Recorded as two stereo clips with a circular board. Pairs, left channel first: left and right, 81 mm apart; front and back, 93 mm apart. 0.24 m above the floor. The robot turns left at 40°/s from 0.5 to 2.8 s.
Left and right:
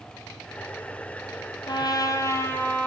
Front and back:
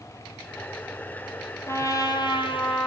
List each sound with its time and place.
1.7 s a trumpet: 60° left, 2 m; by 2.9 s 15° left, 2 m